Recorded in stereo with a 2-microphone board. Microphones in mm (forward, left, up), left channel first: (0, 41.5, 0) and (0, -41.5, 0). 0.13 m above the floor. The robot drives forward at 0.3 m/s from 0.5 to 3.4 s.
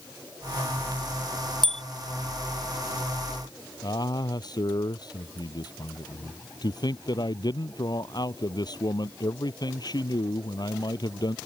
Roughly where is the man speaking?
Left.